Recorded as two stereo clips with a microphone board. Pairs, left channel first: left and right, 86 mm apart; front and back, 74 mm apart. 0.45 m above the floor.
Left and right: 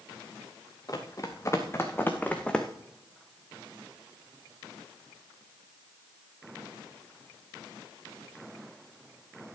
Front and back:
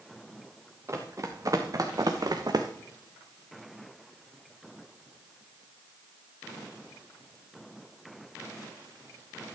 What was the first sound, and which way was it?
Running footsteps, 135° left.